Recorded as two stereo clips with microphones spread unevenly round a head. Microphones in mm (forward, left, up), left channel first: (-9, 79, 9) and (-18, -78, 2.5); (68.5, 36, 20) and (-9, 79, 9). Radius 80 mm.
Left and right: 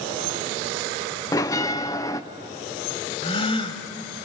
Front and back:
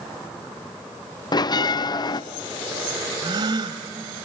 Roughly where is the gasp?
Behind left.